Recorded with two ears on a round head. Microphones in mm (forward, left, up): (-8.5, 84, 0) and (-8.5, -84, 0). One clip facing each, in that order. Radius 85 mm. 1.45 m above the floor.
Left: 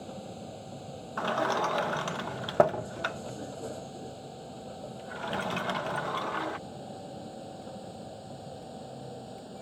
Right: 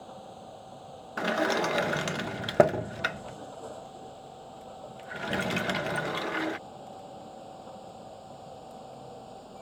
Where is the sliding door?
25° right (ahead or behind).